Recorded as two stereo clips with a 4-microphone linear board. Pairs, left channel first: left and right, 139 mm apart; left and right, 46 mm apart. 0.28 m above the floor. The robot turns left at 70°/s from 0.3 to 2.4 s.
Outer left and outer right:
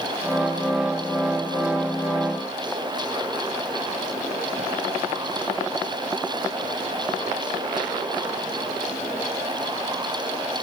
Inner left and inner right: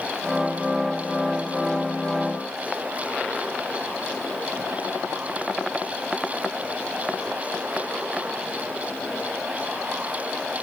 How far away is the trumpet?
I don't hear a trumpet.